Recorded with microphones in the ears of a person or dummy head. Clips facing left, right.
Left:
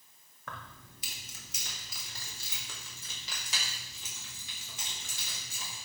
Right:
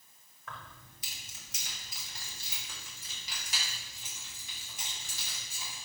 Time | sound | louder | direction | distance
0.5 | keys jangling | left 2 dB | 55° left (ahead or behind) | 1.0 m